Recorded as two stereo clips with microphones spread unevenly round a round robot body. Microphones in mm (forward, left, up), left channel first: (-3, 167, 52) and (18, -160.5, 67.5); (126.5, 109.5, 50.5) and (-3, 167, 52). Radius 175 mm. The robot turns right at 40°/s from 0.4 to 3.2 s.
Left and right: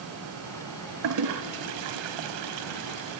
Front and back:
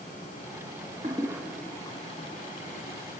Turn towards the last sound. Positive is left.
turn(degrees=-45)